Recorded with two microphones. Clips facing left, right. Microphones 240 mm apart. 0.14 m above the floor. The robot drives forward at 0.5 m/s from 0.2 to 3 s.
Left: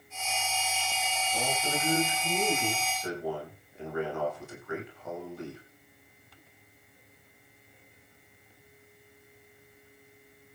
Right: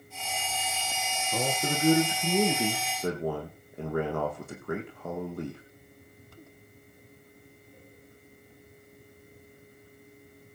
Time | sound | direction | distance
1.3 | a man speaking | 65° right (ahead or behind) | 7.5 m